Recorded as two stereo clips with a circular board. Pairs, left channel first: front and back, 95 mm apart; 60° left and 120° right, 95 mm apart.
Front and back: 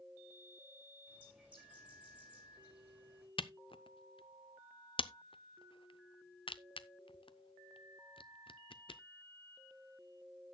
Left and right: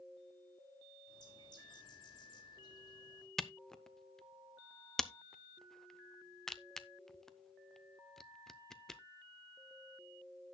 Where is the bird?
100° left, 4 m.